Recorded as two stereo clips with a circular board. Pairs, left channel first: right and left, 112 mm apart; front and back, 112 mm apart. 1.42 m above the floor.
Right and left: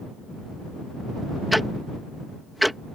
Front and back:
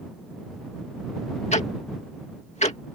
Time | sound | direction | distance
1.5 | ticking | straight ahead | ?